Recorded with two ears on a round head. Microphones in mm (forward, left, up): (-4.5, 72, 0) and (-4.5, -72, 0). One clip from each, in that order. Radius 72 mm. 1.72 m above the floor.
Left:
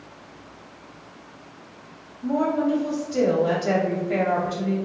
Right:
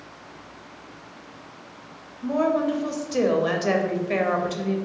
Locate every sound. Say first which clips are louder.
2.2 s a woman speaking: right 1 dB; 45° right (ahead or behind), 0.6 m